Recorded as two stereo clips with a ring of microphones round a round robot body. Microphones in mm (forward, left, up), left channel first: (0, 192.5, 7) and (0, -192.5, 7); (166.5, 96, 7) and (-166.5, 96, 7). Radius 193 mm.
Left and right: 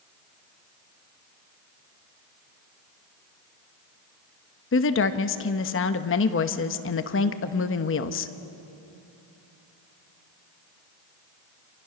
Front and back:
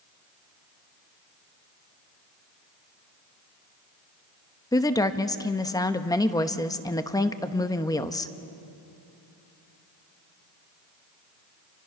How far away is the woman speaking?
About 1.0 m.